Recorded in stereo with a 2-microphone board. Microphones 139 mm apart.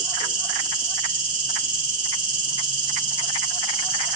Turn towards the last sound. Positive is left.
turn(degrees=-35)  # may be behind; listen again after turning